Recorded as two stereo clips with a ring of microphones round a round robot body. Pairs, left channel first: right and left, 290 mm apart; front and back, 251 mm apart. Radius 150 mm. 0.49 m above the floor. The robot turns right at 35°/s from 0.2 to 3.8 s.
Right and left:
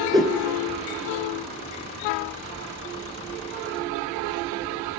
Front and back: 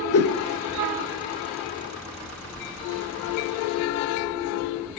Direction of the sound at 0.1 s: 15° left.